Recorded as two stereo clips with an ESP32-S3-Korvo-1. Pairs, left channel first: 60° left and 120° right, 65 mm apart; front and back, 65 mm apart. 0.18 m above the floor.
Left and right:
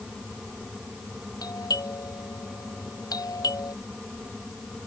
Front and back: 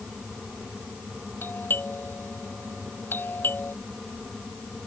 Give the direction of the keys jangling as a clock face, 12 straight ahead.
I don't hear keys jangling.